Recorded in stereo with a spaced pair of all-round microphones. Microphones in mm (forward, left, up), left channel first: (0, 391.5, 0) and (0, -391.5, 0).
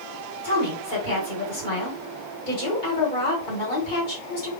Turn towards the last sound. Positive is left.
turn(degrees=85)